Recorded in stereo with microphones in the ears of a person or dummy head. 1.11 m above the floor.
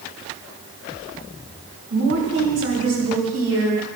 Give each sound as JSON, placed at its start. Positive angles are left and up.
{"t": 1.9, "sound": "a woman speaking", "side_deg": -85, "distance_m": 3.0}